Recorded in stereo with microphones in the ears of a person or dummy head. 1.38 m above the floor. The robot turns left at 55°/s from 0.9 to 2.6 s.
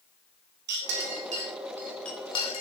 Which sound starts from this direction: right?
A clink, at 0.7 s.